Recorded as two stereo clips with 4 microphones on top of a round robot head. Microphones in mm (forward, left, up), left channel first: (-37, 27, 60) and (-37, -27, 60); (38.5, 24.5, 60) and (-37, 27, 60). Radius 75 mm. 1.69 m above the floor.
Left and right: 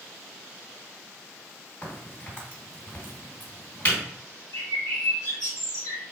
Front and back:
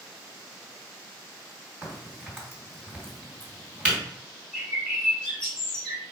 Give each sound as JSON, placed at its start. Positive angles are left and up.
{"t": 1.8, "sound": "a crack", "azimuth_deg": 120, "distance_m": 1.8}
{"t": 4.5, "sound": "a bird", "azimuth_deg": 90, "distance_m": 1.1}